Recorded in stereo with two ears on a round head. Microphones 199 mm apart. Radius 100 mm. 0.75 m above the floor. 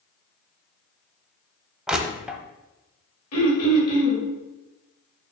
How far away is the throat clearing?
About 2.5 m.